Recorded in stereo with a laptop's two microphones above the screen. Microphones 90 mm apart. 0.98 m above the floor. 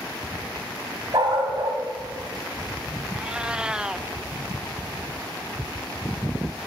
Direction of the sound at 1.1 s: 60° right (ahead or behind).